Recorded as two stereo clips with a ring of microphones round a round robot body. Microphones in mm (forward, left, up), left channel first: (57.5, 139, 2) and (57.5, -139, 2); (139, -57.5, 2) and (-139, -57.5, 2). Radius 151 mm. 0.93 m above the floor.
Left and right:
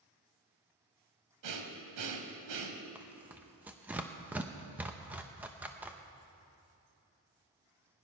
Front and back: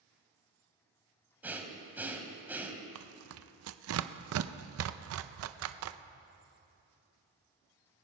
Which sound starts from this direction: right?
Breathing, at 1.4 s.